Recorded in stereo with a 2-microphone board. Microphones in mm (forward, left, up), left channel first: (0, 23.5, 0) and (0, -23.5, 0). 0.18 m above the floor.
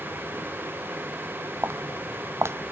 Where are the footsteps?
70° right (ahead or behind), 0.5 m.